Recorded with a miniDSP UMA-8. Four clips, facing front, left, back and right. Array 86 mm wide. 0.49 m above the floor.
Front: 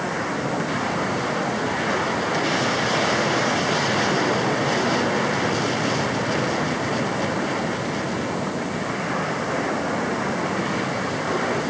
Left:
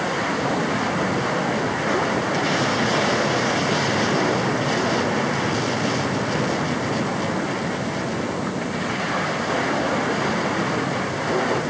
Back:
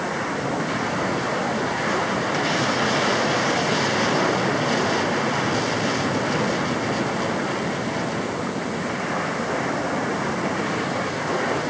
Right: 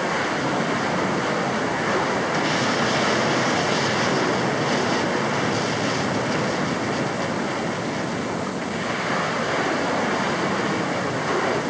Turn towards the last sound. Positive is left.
No sound to turn to.